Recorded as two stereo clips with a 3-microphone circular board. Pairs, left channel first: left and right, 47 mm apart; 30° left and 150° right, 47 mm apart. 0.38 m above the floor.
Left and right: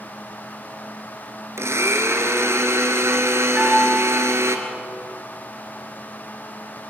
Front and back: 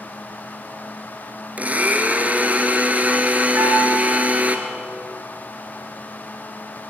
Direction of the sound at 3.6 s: 160° right.